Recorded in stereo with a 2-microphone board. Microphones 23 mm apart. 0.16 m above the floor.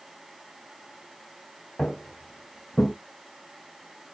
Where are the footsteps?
65° left (ahead or behind), 1.2 m; by 2.9 s 80° left, 0.6 m.